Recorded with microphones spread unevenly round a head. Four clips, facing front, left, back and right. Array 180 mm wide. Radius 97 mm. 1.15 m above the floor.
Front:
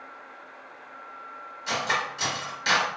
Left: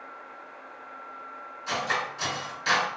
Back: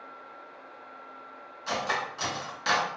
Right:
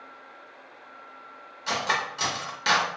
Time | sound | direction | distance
1.7 | cutlery clinking | 90° right | 0.9 m